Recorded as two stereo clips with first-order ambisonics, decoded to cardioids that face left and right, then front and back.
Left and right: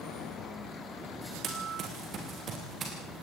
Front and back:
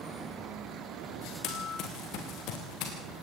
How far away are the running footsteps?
About 3.5 m.